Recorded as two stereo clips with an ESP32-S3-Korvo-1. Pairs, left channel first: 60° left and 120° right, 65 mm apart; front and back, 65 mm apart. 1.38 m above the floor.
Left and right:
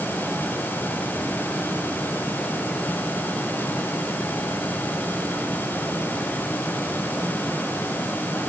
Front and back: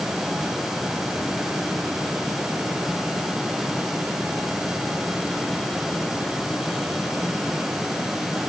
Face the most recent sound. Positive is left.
No sound to turn to.